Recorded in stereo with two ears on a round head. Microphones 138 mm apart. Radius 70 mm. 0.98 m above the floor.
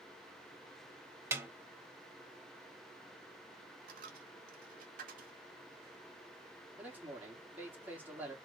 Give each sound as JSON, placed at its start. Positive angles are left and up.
{"t": 1.3, "sound": "a snare drum", "side_deg": -15, "distance_m": 1.0}
{"t": 3.9, "sound": "a dropped coin", "side_deg": -60, "distance_m": 1.6}
{"t": 6.8, "sound": "a man speaking", "side_deg": -10, "distance_m": 2.0}